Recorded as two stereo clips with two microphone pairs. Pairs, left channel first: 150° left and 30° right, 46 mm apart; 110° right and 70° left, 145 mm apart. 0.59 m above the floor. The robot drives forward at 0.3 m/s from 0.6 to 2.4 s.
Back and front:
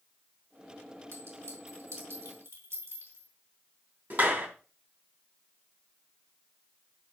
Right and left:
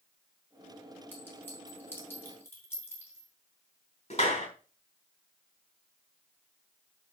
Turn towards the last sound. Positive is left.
turn(degrees=-70)